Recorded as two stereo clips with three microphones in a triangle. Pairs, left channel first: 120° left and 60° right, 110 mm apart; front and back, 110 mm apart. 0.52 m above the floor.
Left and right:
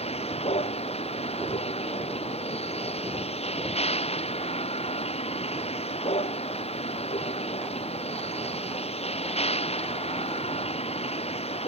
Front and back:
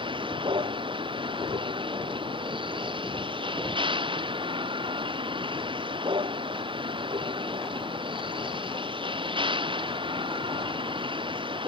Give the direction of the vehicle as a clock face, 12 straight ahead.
7 o'clock.